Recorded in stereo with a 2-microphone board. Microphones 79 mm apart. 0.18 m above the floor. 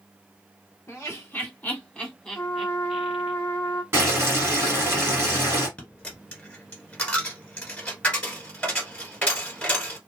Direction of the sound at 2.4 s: 20° left (ahead or behind).